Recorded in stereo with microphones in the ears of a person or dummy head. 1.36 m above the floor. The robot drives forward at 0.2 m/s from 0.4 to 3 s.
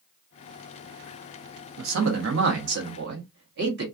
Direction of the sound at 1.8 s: 75° right (ahead or behind).